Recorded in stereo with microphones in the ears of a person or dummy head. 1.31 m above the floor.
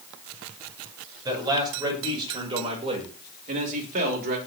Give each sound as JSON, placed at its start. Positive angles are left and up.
{"t": 1.2, "sound": "a man speaking", "side_deg": -20, "distance_m": 6.0}